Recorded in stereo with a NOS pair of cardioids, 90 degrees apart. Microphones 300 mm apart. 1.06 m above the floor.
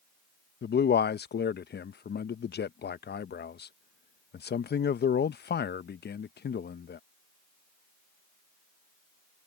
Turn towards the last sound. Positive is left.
turn(degrees=35)